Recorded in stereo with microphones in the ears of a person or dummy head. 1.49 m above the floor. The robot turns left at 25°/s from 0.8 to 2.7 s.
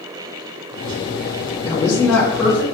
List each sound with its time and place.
1.6 s a woman speaking: 30° left (ahead or behind), 2 m; by 2.6 s 5° left (ahead or behind), 2 m